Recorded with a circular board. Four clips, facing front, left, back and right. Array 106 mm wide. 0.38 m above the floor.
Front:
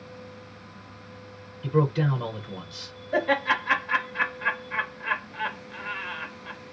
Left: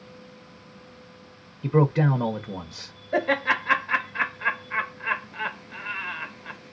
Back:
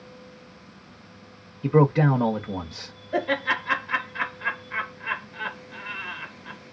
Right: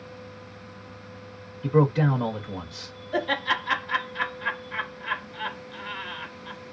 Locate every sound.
1.6 s a man speaking: 160° left, 1.0 m
3.1 s laughter: 80° left, 1.7 m